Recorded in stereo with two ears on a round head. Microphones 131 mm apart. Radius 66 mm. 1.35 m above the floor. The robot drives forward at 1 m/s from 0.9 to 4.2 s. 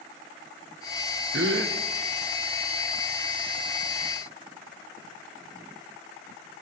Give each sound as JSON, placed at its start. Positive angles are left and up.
{"t": 1.3, "sound": "a gasp", "side_deg": -80, "distance_m": 0.7}